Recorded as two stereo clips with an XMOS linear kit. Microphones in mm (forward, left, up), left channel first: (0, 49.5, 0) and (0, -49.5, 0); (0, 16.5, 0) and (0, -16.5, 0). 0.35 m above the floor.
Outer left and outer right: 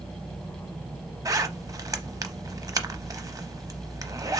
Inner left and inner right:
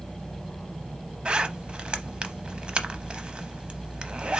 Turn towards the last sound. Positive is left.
turn(degrees=-35)  # may be behind; listen again after turning